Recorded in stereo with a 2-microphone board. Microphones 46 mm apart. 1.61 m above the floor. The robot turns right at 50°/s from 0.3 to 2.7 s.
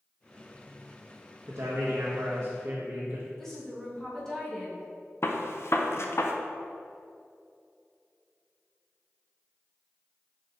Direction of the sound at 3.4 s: 10° left (ahead or behind).